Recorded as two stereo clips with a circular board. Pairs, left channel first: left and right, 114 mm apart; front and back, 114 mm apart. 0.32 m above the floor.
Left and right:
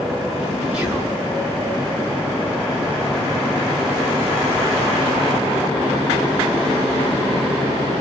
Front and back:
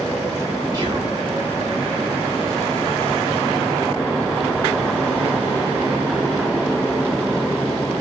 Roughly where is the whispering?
Behind.